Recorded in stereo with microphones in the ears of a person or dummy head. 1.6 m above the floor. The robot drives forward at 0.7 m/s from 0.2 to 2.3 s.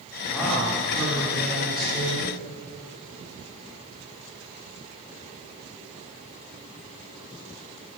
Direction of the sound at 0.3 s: 5° left (ahead or behind).